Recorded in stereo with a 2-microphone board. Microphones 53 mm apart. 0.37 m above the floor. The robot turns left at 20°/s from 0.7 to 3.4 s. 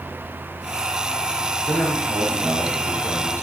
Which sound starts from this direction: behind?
A man speaking, at 1.7 s.